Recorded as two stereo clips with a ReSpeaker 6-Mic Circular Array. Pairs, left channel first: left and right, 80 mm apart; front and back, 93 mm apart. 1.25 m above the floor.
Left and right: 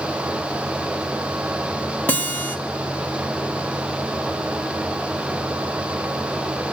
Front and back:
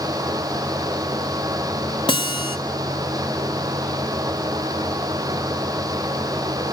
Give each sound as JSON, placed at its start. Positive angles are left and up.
{"t": 2.1, "sound": "a guitar", "azimuth_deg": 25, "distance_m": 1.4}